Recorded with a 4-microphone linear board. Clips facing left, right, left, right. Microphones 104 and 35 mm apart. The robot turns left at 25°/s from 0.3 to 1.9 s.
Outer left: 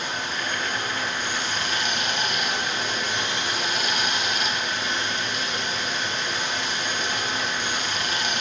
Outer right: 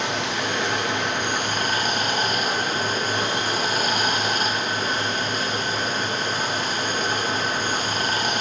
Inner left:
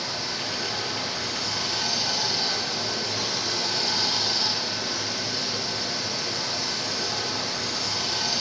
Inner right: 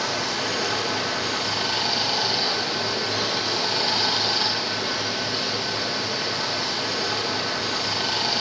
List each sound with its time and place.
0.0 s running water: 100° right, 0.9 m; by 8.4 s 140° right, 0.9 m